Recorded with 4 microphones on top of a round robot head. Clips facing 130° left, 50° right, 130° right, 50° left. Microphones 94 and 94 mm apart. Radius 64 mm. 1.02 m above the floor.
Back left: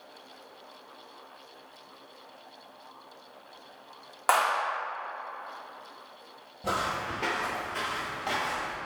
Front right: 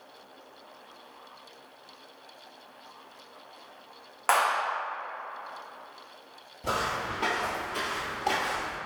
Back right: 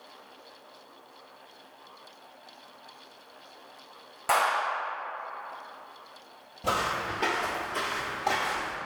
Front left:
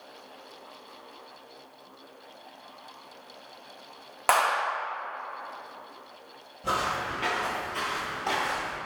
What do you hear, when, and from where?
4.3 s a clap: 50° left, 1.7 m
6.6 s footsteps: 150° right, 1.2 m; by 8.8 s 30° right, 1.2 m